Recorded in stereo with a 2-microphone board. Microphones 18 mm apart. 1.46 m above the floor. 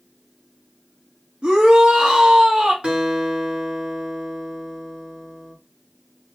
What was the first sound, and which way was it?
A shout, 75° right (ahead or behind).